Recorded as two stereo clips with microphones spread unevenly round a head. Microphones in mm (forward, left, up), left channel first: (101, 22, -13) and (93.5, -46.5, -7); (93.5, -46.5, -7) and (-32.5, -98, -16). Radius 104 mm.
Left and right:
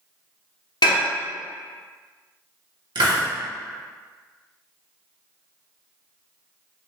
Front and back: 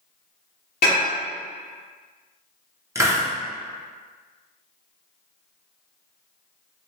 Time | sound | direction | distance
0.8 | dishes clattering | 80° left | 0.7 m
3.0 | a hiss | 85° right | 0.8 m